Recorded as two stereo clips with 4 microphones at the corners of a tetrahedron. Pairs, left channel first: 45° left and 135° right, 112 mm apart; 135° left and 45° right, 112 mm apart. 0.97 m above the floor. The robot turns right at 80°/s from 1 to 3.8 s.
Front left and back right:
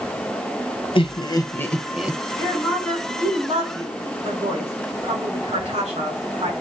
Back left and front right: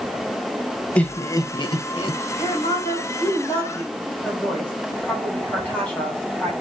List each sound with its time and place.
0.9 s laughter: 60° left, 1.0 m; by 2.2 s 155° left, 1.0 m
2.4 s a woman speaking: 95° left, 3.5 m; by 6.5 s 150° right, 3.5 m